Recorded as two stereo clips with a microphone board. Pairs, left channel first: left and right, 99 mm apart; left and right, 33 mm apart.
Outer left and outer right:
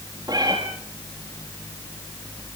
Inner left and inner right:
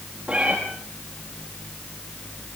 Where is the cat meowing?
40° right (ahead or behind), 5.5 m.